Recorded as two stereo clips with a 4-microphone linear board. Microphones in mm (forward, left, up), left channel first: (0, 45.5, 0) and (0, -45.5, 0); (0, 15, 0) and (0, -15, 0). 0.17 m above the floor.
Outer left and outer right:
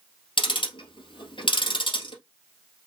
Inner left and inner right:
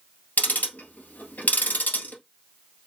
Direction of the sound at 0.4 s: 70° left (ahead or behind).